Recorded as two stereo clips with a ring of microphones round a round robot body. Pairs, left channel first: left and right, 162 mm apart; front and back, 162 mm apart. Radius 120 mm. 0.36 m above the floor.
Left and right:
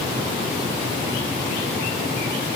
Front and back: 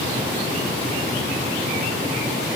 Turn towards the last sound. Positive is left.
No sound to turn to.